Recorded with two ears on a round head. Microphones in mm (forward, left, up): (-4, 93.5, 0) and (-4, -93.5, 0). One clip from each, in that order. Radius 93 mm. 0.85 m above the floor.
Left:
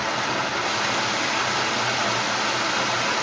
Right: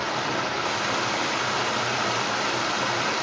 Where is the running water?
15° left (ahead or behind), 1.2 m.